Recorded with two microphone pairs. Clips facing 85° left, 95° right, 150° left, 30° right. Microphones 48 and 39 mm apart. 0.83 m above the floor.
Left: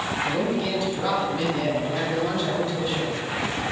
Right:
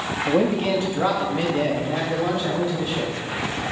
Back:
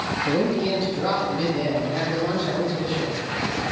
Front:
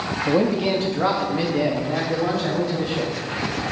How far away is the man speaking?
About 1.3 m.